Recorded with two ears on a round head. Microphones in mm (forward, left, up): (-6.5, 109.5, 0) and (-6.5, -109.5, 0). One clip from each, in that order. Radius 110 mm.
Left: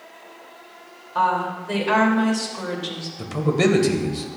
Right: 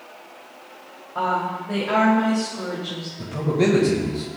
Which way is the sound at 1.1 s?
70° left (ahead or behind).